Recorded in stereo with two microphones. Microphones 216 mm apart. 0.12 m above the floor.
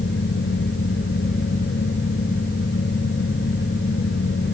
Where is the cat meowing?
I don't hear a cat meowing.